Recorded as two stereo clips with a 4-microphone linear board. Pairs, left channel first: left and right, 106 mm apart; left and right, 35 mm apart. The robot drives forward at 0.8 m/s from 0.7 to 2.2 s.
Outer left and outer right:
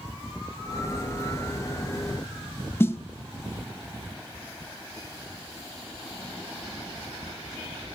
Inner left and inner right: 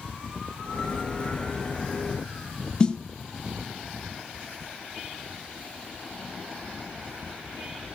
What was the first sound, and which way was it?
A snare drum, 20° left (ahead or behind).